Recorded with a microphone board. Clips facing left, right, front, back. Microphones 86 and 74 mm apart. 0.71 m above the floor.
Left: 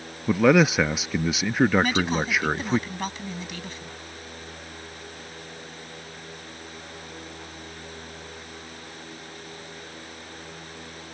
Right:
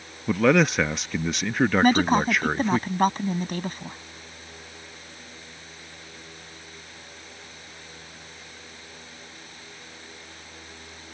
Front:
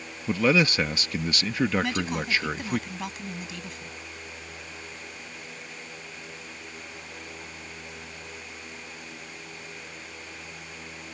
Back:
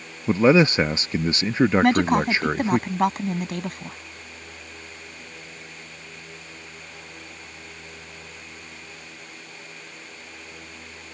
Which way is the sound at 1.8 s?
140° right.